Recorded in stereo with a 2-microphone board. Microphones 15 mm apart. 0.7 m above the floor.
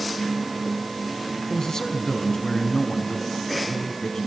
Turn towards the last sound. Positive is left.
turn(degrees=45)  # may be behind; listen again after turning